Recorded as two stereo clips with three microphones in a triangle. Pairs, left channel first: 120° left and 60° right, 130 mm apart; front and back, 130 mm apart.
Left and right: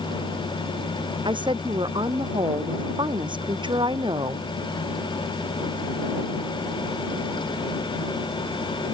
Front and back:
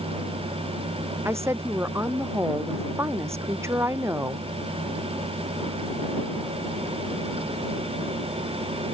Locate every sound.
1.2 s a woman speaking: 110° right